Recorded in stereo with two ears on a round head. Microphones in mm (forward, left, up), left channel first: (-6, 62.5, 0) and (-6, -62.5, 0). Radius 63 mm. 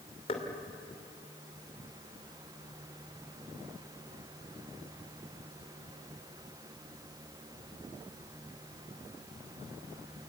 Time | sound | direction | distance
0.3 | knocking | 40° left (ahead or behind) | 3 m